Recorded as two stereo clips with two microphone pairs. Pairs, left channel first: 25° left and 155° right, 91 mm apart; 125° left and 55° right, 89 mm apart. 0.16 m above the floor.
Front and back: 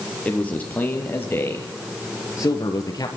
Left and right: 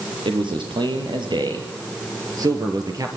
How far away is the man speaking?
About 5 m.